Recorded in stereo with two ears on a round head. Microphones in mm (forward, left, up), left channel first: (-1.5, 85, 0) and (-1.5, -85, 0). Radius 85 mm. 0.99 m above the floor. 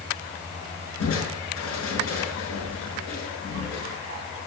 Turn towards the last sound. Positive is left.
turn(degrees=85)